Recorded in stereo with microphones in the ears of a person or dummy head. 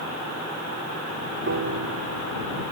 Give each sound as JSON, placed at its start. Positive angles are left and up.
{"t": 1.5, "sound": "a piano", "side_deg": -75}